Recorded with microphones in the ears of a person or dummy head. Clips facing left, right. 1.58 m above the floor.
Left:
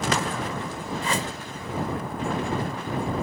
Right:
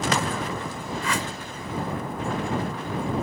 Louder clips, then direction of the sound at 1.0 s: Left 1 dB; 25° left (ahead or behind).